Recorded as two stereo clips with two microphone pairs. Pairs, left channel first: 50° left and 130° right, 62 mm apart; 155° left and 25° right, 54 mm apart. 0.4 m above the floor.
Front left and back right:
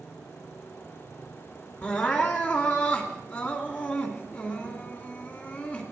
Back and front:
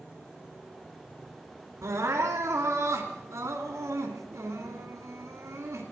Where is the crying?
10° right, 2 m.